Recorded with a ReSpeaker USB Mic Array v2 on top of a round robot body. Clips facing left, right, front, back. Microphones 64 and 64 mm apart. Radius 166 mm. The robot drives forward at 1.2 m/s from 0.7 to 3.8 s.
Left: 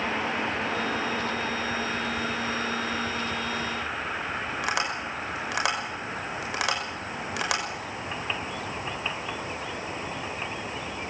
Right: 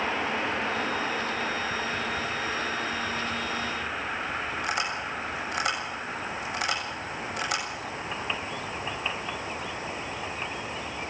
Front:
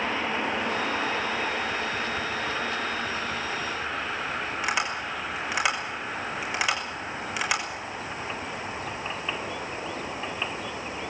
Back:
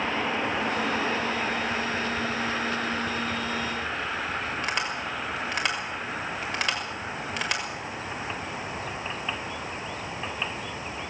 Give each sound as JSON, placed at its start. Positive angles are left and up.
{"t": 4.6, "sound": "tapping", "azimuth_deg": 85, "distance_m": 6.5}